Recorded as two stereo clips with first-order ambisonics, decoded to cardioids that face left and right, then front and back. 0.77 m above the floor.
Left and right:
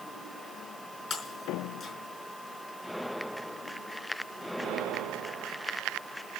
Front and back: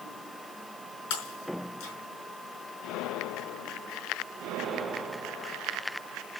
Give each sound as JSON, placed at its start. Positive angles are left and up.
{"t": 1.1, "sound": "breaking glass", "azimuth_deg": 20, "distance_m": 5.0}